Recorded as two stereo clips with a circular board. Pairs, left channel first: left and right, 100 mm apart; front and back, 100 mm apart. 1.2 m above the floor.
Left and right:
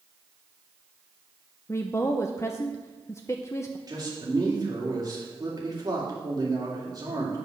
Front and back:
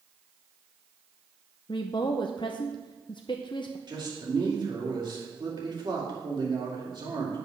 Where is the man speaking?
140° right, 2.5 m.